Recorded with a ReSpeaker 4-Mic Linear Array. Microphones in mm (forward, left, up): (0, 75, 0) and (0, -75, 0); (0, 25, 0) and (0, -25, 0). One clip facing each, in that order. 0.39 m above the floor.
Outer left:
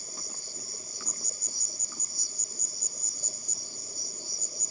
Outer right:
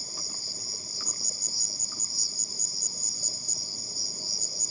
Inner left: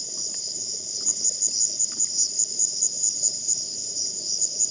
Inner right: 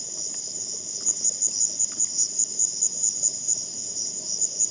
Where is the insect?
35° right (ahead or behind).